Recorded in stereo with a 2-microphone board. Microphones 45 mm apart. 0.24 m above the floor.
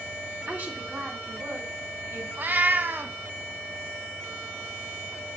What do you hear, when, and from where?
0.5 s a woman speaking: 40° right (ahead or behind), 2 m; by 2.3 s 60° right (ahead or behind), 3 m
2.4 s a cat meowing: 45° right (ahead or behind), 0.6 m